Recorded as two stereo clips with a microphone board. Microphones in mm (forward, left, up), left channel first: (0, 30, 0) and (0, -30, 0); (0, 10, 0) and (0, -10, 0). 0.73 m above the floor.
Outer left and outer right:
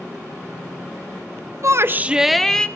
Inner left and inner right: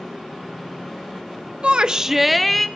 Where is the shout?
50° right (ahead or behind), 0.7 m; by 2.7 s 15° left (ahead or behind), 1.1 m.